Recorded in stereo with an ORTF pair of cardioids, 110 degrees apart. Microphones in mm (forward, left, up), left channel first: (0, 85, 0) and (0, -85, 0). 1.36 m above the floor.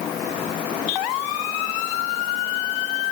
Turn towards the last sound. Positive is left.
No sound to turn to.